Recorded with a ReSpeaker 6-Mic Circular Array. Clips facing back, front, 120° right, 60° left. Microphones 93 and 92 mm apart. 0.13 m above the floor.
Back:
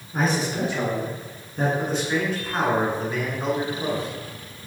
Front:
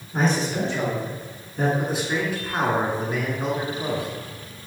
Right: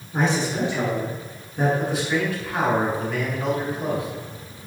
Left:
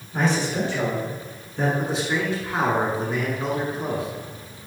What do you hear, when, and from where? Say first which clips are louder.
0.1 s a man speaking: front 1 dB, even; 100° right, 1.5 m; by 1.7 s 175° left, 1.6 m
1.8 s a man speaking: back 1 dB, right 1 dB; 75° left, 1.3 m